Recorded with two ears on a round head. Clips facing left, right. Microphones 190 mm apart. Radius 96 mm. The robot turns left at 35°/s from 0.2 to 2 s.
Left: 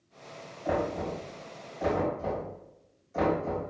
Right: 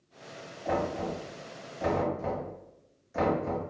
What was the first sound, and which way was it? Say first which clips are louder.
Knocking: left 1 dB; 30° left (ahead or behind).